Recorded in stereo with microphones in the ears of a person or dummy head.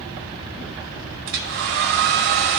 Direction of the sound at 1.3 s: 45° right (ahead or behind).